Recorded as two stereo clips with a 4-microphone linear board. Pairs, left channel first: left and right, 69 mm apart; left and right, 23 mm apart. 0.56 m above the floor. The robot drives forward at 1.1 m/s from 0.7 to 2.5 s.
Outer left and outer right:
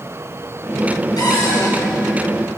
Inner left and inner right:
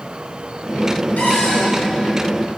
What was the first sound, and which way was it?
A cupboard door, 85° left.